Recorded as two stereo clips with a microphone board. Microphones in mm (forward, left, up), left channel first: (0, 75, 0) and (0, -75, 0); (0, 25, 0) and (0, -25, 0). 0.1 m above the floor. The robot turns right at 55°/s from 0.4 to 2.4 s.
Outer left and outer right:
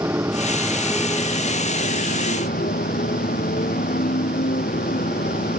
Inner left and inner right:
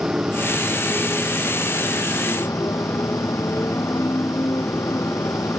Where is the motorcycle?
20° right; by 5.6 s 90° left.